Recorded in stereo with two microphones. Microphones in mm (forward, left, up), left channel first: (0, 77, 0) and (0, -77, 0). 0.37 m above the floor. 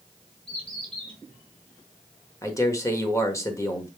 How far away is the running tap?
I don't hear a running tap.